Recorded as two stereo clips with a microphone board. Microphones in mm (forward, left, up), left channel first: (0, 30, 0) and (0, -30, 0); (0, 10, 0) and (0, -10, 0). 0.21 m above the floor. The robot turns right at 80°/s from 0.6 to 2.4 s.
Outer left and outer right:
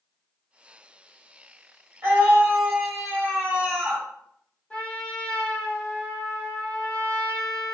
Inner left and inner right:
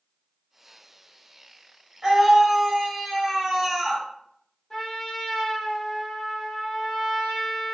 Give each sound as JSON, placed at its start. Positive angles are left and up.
{"t": 2.0, "sound": "a scream", "azimuth_deg": -70, "distance_m": 1.7}
{"t": 4.7, "sound": "a trumpet", "side_deg": 20, "distance_m": 1.2}